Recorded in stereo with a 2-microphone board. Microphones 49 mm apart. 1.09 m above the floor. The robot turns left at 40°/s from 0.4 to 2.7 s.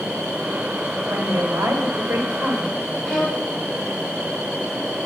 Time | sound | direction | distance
1.1 | a woman speaking | 45° right | 1.7 m
3.0 | a violin | 10° right (ahead or behind) | 2.5 m